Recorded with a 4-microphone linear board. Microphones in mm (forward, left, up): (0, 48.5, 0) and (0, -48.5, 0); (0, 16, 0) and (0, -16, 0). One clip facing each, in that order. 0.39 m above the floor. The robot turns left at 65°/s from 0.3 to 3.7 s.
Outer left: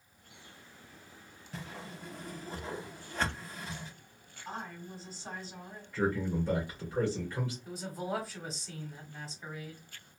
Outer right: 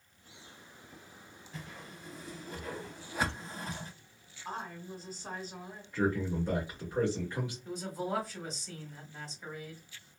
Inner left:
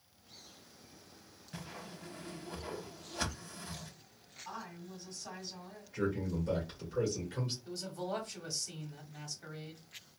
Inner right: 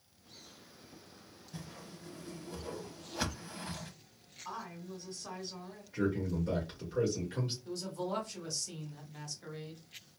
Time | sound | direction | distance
1.5 | a whoosh | 80° left | 0.6 m
4.5 | a woman speaking | 45° right (ahead or behind) | 1.7 m
5.9 | a man speaking | 20° right (ahead or behind) | 1.4 m
7.7 | a man speaking | 5° left (ahead or behind) | 1.0 m